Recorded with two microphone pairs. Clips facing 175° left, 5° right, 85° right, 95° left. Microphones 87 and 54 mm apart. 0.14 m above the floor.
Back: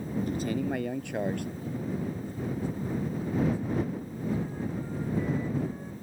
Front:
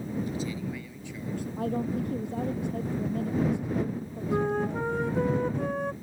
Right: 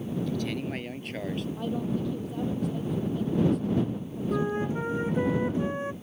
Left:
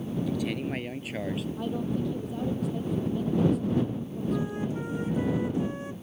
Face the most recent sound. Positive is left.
turn(degrees=-25)